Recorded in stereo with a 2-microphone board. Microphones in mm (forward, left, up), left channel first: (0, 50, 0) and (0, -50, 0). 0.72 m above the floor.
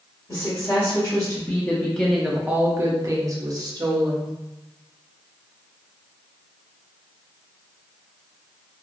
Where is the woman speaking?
35° left (ahead or behind), 1.1 m; by 4.3 s 40° right (ahead or behind), 1.2 m.